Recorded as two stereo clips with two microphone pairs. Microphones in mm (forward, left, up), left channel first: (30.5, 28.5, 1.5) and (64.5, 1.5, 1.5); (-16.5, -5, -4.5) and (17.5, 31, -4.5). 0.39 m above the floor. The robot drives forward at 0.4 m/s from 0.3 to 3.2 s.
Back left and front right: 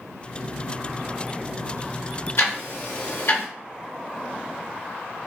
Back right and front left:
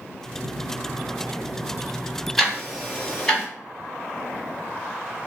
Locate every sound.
2.4 s ticking: 135° left, 1.2 m; by 3.5 s 145° left, 1.5 m